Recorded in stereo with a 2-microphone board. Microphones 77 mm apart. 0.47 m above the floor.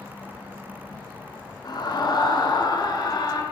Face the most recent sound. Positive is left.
turn(degrees=60)  # may be behind; listen again after turning